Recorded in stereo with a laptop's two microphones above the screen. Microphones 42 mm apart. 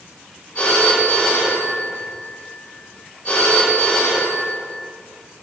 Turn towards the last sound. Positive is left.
turn(degrees=40)  # may be behind; listen again after turning